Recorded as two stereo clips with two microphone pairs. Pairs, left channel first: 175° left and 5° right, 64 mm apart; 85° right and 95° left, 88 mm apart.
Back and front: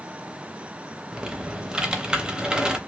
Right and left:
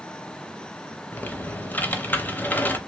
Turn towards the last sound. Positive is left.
turn(degrees=-55)